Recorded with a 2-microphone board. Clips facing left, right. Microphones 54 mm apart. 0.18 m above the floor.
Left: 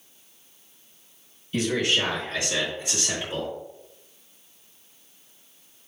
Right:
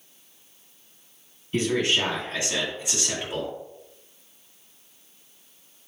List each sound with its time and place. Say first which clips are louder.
1.5 s a man speaking: right 1 dB; 35° right (ahead or behind), 1.9 m; by 3.5 s 10° right (ahead or behind), 2 m